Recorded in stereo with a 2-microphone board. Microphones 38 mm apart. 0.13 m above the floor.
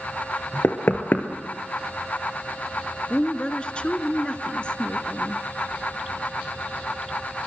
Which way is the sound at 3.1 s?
30° left (ahead or behind).